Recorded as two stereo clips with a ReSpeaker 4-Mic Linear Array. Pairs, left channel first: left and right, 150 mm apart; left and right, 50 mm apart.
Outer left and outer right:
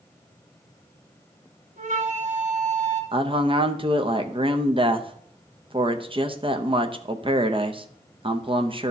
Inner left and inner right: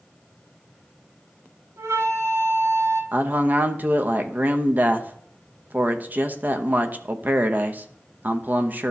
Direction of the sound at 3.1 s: 35° right (ahead or behind).